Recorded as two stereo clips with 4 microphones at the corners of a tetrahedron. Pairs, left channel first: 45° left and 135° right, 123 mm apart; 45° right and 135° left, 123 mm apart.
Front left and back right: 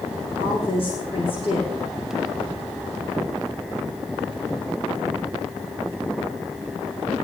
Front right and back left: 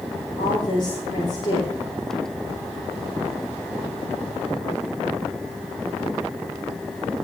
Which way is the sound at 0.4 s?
5° left.